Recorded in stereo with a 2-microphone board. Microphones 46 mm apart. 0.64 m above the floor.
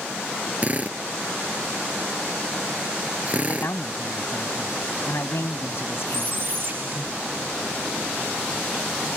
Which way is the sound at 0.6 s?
30° right (ahead or behind).